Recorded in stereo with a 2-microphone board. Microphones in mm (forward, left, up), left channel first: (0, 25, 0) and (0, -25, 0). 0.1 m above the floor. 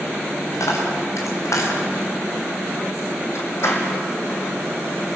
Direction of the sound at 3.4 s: 55° left (ahead or behind).